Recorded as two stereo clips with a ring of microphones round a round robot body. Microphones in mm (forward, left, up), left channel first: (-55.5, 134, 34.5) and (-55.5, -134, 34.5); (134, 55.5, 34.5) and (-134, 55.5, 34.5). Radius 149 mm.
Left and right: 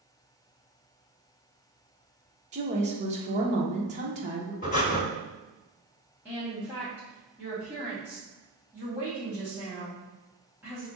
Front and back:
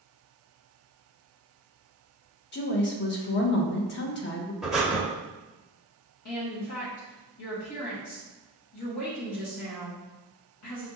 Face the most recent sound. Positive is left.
turn(degrees=-5)